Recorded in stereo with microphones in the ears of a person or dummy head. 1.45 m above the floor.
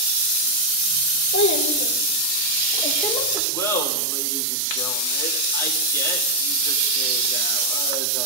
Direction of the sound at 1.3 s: 50° left (ahead or behind).